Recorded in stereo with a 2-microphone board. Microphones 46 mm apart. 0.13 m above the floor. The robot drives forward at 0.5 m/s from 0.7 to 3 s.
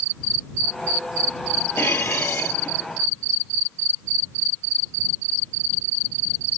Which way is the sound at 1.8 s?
55° left (ahead or behind).